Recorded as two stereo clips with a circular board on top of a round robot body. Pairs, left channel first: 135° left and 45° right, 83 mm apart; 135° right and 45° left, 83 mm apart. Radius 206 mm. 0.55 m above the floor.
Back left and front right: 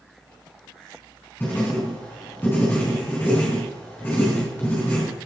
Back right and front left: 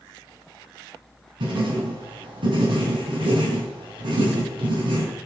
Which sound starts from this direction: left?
Writing, at 1.4 s.